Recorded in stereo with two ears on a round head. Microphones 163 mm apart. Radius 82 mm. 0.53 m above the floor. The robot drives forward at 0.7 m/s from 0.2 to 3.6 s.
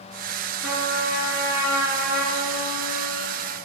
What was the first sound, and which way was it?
A trumpet, 65° left (ahead or behind).